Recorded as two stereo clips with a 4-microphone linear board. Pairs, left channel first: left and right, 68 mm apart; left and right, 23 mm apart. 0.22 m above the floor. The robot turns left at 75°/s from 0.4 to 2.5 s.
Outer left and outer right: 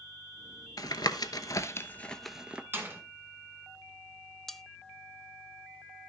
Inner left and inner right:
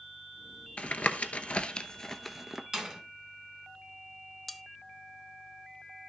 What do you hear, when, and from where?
0.8 s tapping: 65° left (ahead or behind), 0.9 m; by 2.6 s 15° right (ahead or behind), 0.9 m
2.7 s a door slam: 30° right (ahead or behind), 1.8 m
4.5 s cutlery clinking: 5° left (ahead or behind), 0.5 m